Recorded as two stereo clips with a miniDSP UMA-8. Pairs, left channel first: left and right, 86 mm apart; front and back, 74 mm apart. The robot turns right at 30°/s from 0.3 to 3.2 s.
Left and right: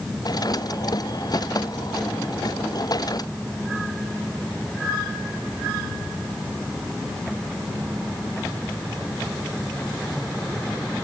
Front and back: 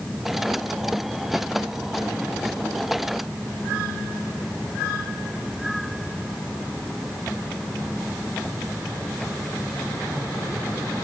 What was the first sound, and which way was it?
Only background noise.